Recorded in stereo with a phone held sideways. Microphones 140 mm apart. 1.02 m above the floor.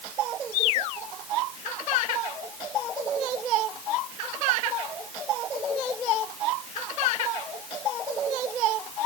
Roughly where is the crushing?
I don't hear crushing.